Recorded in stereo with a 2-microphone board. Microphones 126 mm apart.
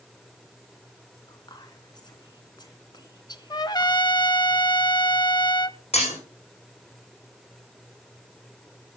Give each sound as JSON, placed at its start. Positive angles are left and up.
{"t": 1.3, "sound": "whispering", "side_deg": 35, "distance_m": 3.0}
{"t": 3.5, "sound": "a trumpet", "side_deg": 35, "distance_m": 0.7}
{"t": 5.9, "sound": "breaking glass", "side_deg": 60, "distance_m": 9.5}